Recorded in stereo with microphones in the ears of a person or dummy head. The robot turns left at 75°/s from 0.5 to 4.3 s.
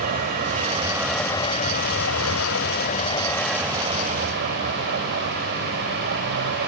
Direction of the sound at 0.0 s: 135° right.